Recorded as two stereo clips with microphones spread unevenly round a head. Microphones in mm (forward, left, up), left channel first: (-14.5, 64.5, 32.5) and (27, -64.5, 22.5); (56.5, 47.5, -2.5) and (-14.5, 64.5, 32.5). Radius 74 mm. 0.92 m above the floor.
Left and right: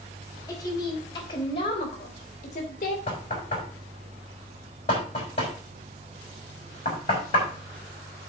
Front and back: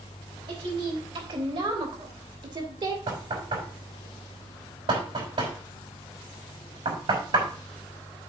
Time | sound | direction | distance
0.5 | a woman speaking | 175° left | 4 m
3.1 | knocking | 160° left | 5 m